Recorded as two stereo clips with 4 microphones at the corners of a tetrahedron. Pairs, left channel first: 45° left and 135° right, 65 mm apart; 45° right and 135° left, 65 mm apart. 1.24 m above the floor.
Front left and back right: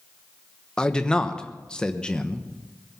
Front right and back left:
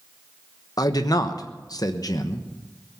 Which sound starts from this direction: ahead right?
A man speaking, at 0.8 s.